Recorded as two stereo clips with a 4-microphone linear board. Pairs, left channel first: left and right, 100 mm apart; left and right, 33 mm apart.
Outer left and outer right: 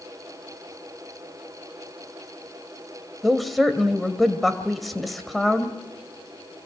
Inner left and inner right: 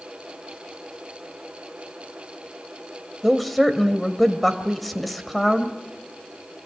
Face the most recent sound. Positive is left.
turn(degrees=0)  # may be behind; listen again after turning